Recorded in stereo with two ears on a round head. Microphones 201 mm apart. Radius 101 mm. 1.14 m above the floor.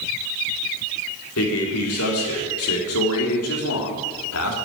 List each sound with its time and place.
1.4 s a man speaking: 75° left (ahead or behind), 4 m